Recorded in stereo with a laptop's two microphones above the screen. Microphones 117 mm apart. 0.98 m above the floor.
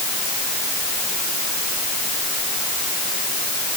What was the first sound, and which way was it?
Only background noise.